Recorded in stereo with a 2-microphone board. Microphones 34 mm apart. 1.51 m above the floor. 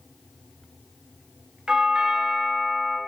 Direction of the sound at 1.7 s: 25° right (ahead or behind).